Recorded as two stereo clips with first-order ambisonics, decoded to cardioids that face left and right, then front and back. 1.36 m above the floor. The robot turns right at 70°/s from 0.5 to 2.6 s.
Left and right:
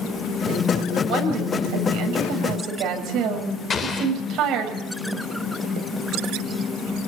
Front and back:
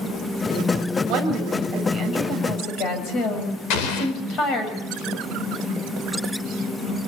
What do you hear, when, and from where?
1.1 s a woman speaking: 155° right, 6.5 m; by 4.7 s 45° right, 6.5 m
3.7 s an explosion: 25° left, 3.5 m